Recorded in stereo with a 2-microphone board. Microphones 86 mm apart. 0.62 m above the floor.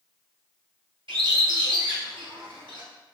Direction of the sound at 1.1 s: 85° right.